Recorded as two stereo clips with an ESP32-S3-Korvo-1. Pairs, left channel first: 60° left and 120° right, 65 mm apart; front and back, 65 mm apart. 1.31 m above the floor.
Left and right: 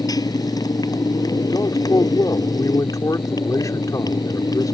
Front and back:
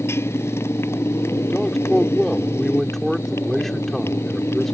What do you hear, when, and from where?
0.0 s a motorcycle: 50° left
1.5 s a man speaking: 85° left